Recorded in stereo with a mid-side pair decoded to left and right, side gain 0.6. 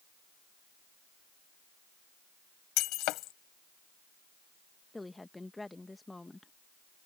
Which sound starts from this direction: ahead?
A woman speaking, at 4.9 s.